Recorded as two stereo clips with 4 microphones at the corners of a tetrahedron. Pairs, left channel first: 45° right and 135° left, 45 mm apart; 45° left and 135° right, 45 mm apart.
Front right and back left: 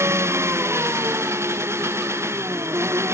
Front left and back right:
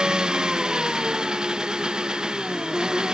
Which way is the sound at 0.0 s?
155° left.